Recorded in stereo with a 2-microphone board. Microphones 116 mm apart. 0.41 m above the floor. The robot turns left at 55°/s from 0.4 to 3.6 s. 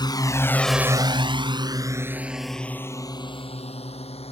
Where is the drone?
40° left (ahead or behind); by 4.3 s 60° left (ahead or behind).